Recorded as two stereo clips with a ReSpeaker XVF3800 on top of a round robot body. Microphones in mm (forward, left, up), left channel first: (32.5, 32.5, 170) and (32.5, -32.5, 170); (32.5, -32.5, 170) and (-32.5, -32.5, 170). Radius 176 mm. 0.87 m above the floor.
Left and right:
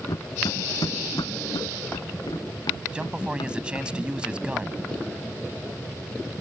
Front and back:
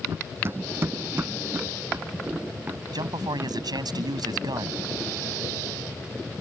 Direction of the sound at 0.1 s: 125° left.